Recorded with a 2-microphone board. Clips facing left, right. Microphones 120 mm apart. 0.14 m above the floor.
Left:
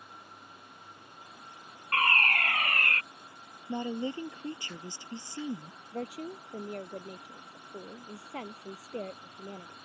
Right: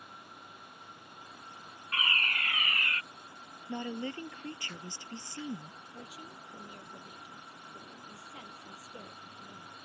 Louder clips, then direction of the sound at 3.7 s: Left 4 dB; 20° left (ahead or behind).